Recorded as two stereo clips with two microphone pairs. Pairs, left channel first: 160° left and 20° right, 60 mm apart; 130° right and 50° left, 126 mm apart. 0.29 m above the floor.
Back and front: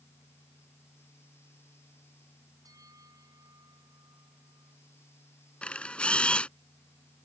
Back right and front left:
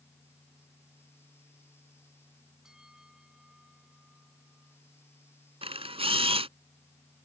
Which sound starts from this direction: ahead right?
A bell, at 2.6 s.